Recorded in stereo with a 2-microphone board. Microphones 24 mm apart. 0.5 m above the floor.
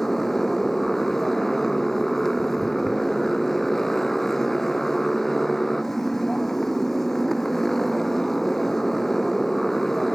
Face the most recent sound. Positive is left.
turn(degrees=15)  # may be behind; listen again after turning